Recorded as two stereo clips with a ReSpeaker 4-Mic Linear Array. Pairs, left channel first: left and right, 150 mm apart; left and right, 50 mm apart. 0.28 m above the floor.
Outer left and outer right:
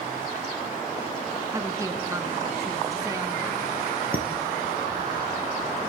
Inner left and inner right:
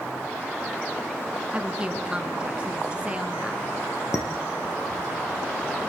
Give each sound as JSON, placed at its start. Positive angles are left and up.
{"t": 1.5, "sound": "a woman speaking", "side_deg": -20, "distance_m": 2.5}
{"t": 4.1, "sound": "dishes clattering", "side_deg": 75, "distance_m": 4.5}